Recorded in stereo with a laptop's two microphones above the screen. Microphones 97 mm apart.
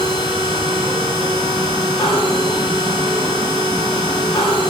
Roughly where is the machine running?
Left.